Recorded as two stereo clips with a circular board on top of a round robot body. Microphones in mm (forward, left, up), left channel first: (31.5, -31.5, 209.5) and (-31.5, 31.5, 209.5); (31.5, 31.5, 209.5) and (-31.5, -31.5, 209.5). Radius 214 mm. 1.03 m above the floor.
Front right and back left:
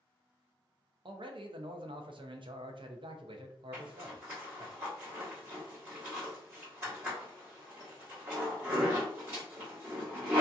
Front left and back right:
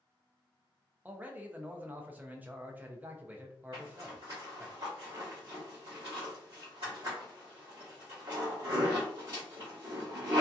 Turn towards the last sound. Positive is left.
turn(degrees=-165)